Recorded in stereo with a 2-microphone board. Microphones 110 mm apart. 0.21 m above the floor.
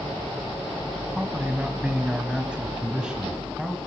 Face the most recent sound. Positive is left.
turn(degrees=-5)  # may be behind; listen again after turning